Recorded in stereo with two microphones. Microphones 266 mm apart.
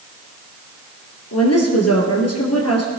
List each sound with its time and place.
1.3 s a woman speaking: 65° left (ahead or behind), 4 m